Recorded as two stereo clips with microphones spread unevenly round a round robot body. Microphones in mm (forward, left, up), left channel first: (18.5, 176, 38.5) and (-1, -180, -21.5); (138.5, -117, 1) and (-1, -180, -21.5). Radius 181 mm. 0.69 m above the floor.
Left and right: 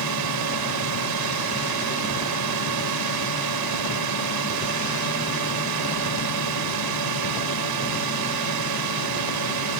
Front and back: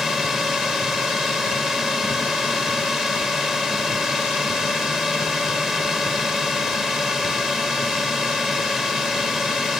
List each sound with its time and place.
0.0 s a drone: 70° right